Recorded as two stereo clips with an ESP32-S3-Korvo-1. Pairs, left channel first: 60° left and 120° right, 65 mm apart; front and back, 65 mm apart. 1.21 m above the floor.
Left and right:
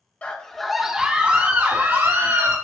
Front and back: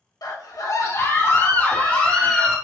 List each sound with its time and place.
0.2 s a scream: 10° right, 1.5 m; by 2.5 s 80° right, 3 m